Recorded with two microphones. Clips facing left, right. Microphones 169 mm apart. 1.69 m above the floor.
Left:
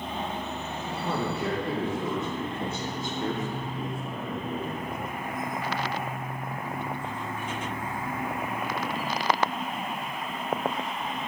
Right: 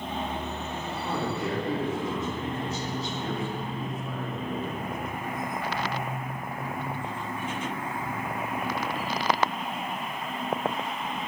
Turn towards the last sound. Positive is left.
turn(degrees=10)  # may be behind; listen again after turning